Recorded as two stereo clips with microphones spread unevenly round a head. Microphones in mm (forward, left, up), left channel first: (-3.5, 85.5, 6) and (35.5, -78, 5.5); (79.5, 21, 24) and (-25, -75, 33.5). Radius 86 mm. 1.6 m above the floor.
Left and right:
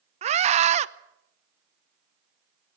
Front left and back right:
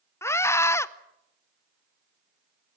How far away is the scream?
About 0.9 m.